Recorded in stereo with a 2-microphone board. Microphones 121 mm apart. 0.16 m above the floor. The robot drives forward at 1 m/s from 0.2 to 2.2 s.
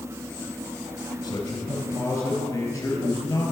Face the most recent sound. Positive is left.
turn(degrees=25)  # may be behind; listen again after turning